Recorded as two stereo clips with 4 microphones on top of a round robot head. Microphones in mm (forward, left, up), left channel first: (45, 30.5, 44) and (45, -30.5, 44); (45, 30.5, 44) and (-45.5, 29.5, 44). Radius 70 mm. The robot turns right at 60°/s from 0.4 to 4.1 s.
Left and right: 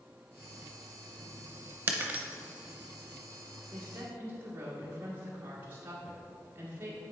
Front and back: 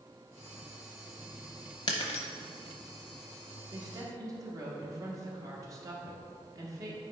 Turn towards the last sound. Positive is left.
turn(degrees=-140)